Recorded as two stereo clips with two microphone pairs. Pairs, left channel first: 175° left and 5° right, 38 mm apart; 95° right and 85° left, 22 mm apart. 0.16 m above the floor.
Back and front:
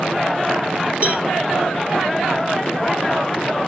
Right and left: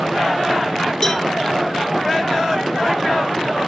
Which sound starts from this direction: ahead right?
A cowbell, at 1.0 s.